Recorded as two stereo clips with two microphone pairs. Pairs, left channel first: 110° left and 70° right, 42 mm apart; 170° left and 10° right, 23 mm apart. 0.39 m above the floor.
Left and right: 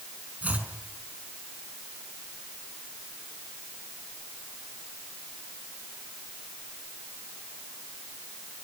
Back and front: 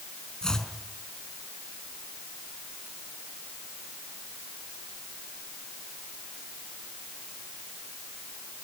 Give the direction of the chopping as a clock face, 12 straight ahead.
4 o'clock.